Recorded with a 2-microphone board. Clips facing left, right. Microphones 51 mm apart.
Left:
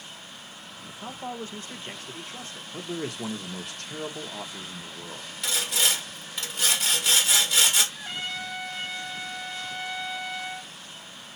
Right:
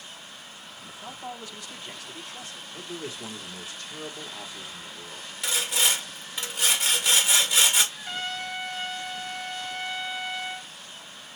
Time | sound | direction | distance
1.0 | a man speaking | 35° left (ahead or behind) | 0.9 m
2.7 | a man speaking | 60° left (ahead or behind) | 1.2 m
5.4 | sawing | 5° right (ahead or behind) | 1.5 m
7.9 | a trumpet | 25° left (ahead or behind) | 2.5 m